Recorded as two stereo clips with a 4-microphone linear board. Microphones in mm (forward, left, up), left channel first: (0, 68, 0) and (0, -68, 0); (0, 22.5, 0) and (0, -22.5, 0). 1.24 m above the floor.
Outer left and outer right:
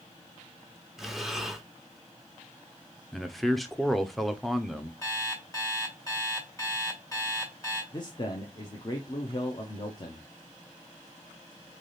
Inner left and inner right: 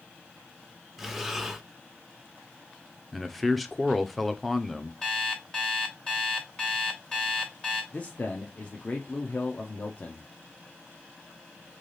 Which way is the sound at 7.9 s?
35° left (ahead or behind).